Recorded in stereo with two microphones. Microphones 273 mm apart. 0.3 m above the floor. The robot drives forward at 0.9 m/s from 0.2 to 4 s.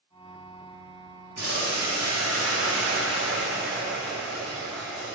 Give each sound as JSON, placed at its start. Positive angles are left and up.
{"t": 1.4, "sound": "boiling", "side_deg": -75, "distance_m": 1.8}